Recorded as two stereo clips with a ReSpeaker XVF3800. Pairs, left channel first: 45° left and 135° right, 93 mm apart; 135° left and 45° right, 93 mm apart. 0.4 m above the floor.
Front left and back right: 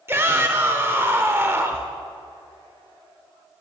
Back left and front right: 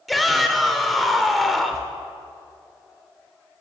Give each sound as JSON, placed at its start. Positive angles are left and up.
{"t": 0.1, "sound": "a shout", "azimuth_deg": -135, "distance_m": 0.8}